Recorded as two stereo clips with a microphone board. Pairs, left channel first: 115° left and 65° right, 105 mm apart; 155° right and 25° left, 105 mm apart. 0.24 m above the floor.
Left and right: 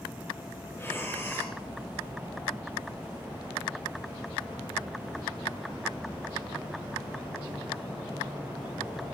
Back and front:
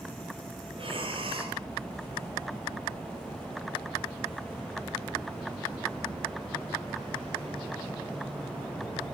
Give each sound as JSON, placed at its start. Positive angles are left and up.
{"t": 0.8, "sound": "breathing", "azimuth_deg": 45, "distance_m": 3.5}